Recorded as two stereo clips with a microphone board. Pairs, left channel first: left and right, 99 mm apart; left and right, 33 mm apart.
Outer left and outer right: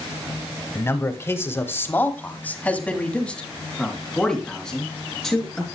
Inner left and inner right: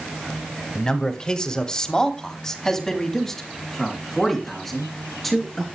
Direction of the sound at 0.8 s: 25° left (ahead or behind).